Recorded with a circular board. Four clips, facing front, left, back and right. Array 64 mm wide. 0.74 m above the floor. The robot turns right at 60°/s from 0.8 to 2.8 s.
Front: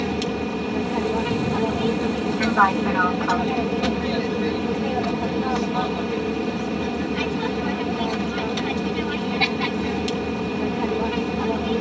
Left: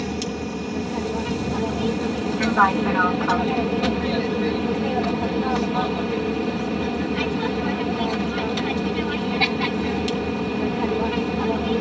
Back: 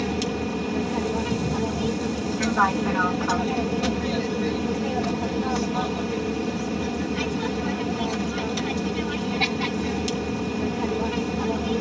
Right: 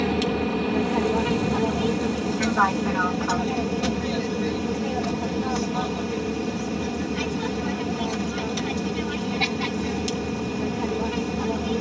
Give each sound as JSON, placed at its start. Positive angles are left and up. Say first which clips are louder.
{"t": 0.0, "sound": "an aircraft", "louder": "right 4 dB, front 2 dB", "azimuth_deg": -65}